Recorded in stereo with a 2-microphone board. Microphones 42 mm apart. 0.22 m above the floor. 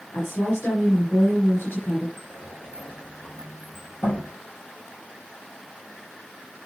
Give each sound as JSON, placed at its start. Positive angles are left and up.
{"t": 0.1, "sound": "a woman speaking", "side_deg": 65, "distance_m": 4.0}
{"t": 2.2, "sound": "a sliding door", "side_deg": 65, "distance_m": 5.5}